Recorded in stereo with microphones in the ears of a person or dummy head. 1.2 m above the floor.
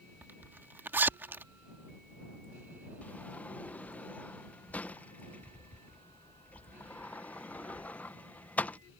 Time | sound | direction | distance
0.2 | a zipper | 15° right (ahead or behind) | ?
3.0 | a sliding door | 10° left (ahead or behind) | ?